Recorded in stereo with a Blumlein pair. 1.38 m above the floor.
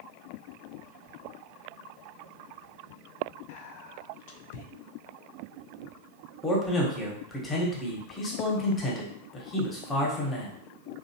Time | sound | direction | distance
3.5 | whispering | 50° left | 0.6 m
6.4 | a man speaking | 15° left | 1.1 m